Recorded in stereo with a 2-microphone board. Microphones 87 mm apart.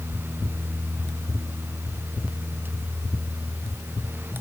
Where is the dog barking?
I don't hear a dog barking.